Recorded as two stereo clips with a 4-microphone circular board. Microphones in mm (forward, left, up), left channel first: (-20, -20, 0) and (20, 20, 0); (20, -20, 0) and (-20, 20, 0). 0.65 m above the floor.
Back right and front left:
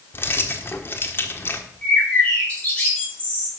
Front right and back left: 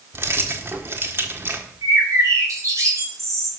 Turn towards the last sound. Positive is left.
turn(degrees=160)